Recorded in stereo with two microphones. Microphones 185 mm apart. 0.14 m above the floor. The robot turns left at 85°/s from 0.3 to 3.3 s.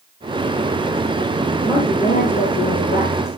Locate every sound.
1.6 s a woman speaking: 170° right, 6 m; by 3.3 s 45° left, 6 m